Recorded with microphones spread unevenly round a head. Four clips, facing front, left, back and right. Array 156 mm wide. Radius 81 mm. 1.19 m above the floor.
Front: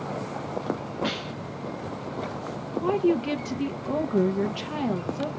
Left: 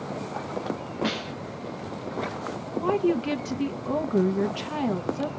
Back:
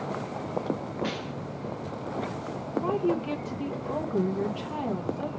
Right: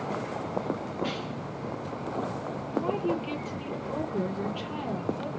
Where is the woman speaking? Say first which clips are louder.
Left 6 dB, front 4 dB; 50° left, 1.1 m.